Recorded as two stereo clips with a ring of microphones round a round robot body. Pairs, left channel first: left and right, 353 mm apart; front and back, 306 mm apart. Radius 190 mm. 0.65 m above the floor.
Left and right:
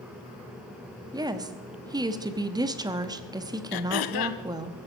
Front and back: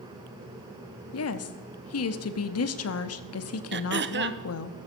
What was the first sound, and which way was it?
A woman speaking, 15° right.